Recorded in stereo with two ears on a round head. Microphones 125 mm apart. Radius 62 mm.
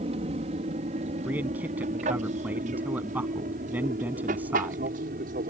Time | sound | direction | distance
0.0 | an aircraft | 45° right (ahead or behind) | ?
1.2 | a man speaking | 10° right (ahead or behind) | ?